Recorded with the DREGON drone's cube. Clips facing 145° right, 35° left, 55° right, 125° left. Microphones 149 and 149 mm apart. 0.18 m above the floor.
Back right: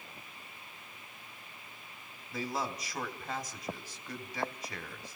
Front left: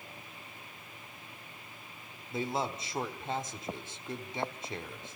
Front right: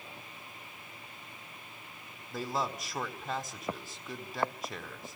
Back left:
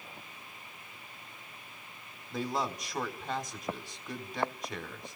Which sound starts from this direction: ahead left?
A man speaking, at 2.3 s.